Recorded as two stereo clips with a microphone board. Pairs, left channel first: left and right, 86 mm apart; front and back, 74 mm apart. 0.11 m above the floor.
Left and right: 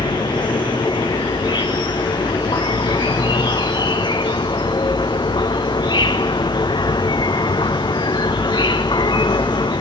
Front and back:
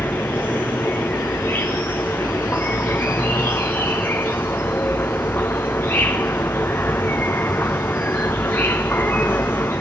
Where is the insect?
60° left, 1.0 m.